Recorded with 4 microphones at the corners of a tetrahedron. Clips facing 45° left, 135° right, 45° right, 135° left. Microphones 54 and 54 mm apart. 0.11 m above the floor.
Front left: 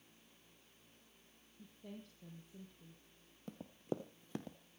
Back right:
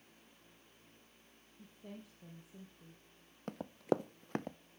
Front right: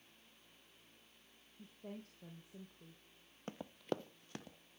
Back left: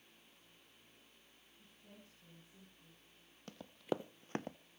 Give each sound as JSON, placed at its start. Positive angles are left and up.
{"t": 1.6, "sound": "a woman speaking", "azimuth_deg": -55, "distance_m": 5.0}
{"t": 3.5, "sound": "running footsteps", "azimuth_deg": -110, "distance_m": 0.9}